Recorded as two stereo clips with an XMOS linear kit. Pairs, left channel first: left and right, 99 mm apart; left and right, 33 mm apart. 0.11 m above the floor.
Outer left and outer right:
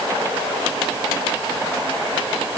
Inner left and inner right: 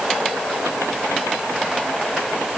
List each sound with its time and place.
Only background noise.